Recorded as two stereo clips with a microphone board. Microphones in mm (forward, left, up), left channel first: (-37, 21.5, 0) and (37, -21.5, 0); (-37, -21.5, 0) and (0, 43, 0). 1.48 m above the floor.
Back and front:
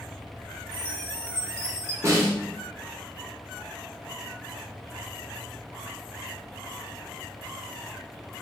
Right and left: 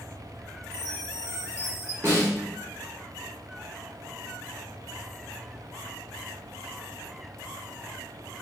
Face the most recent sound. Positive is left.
turn(degrees=10)